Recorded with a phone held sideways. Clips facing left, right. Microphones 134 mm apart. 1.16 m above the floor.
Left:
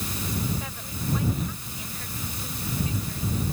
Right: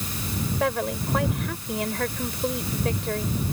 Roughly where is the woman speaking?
Right.